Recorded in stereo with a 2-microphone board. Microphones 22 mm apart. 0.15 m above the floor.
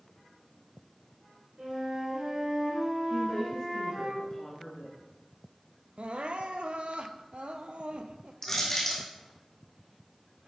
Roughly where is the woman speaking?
Left.